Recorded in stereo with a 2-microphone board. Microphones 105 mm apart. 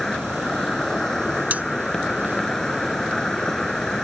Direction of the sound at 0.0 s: 5° left (ahead or behind).